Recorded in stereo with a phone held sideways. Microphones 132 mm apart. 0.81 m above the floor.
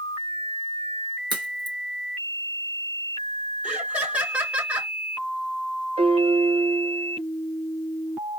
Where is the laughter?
10° right (ahead or behind), 2.5 m.